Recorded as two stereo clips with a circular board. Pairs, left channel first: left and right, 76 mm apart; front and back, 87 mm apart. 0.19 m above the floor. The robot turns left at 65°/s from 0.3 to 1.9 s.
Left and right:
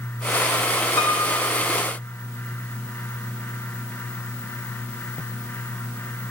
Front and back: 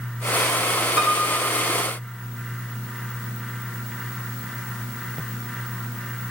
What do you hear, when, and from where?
1.0 s a piano: 105° left, 2.5 m; by 1.7 s 55° left, 2.5 m